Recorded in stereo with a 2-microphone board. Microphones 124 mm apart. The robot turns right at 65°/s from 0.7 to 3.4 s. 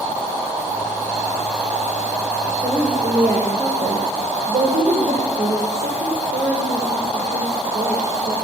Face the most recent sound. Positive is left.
turn(degrees=-100)